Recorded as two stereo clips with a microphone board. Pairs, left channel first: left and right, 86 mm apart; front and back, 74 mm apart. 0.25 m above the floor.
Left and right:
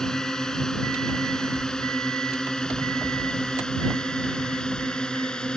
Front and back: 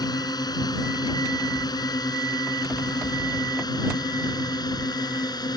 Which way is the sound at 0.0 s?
10° left.